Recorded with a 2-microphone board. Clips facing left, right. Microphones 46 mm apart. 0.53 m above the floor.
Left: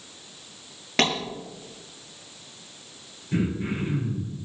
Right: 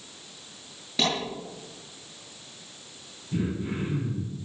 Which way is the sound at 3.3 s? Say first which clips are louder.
Left 3 dB; 80° left.